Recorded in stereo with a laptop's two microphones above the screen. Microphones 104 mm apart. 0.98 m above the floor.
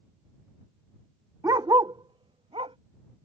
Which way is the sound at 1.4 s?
30° right (ahead or behind).